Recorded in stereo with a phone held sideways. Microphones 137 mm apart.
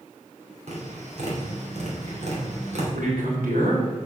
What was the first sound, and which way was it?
Tapping, 55° right (ahead or behind).